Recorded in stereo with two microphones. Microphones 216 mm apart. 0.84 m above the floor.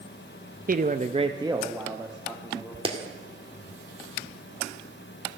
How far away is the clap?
About 1.8 m.